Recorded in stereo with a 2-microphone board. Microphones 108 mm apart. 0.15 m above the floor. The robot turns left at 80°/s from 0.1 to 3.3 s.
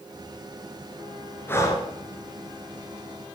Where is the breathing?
160° left, 1.6 m; by 1.9 s 125° left, 1.6 m.